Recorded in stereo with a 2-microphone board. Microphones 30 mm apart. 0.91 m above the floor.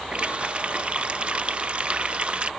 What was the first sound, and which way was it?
A running tap, 40° right (ahead or behind).